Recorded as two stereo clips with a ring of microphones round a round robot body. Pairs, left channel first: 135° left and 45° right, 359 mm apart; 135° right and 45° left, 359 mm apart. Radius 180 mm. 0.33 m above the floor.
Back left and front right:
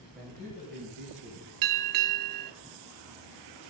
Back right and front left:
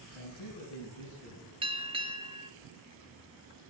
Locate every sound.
0.1 s a man speaking: 140° right, 2.5 m; by 1.5 s 165° right, 3.5 m
1.6 s a bell: 30° right, 0.6 m